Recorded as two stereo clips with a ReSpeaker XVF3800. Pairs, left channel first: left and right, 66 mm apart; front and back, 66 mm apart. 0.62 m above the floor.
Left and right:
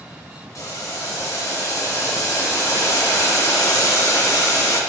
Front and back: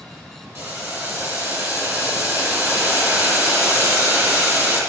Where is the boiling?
130° left, 2.5 m.